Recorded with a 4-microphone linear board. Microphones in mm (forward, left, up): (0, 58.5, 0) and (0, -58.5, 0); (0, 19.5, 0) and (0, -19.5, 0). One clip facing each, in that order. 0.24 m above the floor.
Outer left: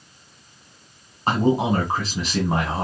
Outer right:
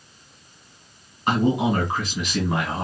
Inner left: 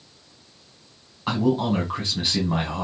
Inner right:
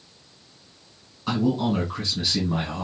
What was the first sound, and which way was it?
A man speaking, 35° left (ahead or behind).